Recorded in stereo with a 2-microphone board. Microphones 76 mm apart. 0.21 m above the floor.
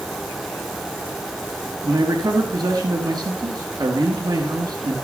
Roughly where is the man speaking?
Right.